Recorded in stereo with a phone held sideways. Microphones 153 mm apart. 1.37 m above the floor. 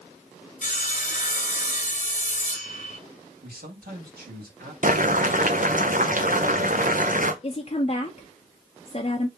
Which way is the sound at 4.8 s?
60° right (ahead or behind).